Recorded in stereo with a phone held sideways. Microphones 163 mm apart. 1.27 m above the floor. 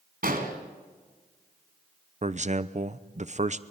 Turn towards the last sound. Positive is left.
turn(degrees=-45)  # may be behind; listen again after turning